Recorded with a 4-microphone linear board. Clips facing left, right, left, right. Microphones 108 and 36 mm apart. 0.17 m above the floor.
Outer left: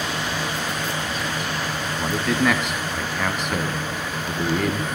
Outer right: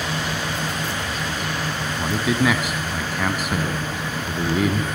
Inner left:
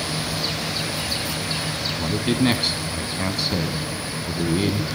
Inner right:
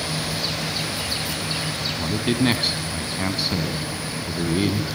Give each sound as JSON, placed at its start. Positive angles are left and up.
{"t": 2.0, "sound": "a man speaking", "side_deg": -5, "distance_m": 1.1}